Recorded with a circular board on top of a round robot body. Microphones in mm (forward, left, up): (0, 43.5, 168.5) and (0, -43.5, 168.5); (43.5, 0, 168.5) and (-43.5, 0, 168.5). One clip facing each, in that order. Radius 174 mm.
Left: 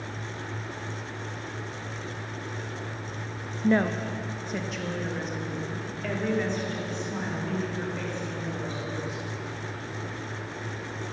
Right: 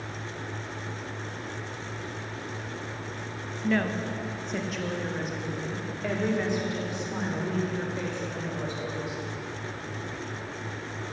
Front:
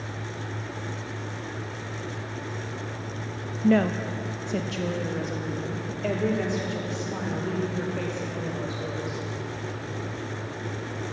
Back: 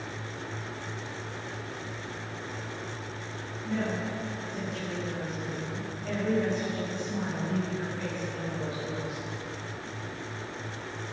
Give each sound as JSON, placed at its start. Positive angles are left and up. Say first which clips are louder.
{"t": 3.6, "sound": "a woman speaking", "louder": "left 3 dB, front 10 dB", "azimuth_deg": 25, "distance_m": 0.9}